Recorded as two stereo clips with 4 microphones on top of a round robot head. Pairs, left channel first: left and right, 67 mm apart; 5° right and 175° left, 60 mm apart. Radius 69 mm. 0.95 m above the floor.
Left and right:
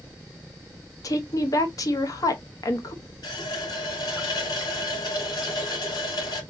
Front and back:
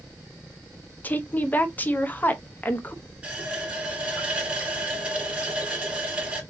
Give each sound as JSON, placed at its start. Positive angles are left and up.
{"t": 1.0, "sound": "a woman speaking", "azimuth_deg": 55, "distance_m": 1.0}
{"t": 3.2, "sound": "a running tap", "azimuth_deg": 105, "distance_m": 3.0}